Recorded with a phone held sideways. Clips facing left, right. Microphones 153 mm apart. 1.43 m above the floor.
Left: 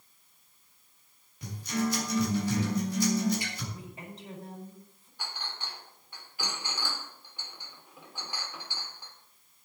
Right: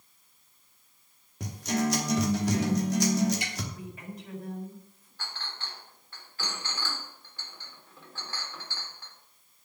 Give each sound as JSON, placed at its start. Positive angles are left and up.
{"t": 1.4, "sound": "a guitar", "side_deg": -80, "distance_m": 3.0}
{"t": 3.7, "sound": "a woman speaking", "side_deg": 30, "distance_m": 4.5}
{"t": 5.2, "sound": "a clink", "side_deg": 15, "distance_m": 3.0}